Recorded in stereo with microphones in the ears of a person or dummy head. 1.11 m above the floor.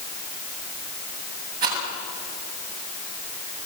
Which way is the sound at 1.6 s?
50° right (ahead or behind).